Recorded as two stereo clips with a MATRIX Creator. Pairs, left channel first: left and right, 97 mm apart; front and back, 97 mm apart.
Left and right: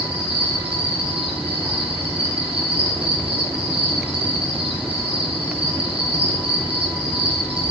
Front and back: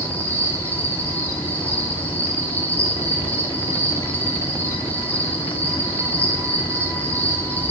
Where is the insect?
70° right, 3 m.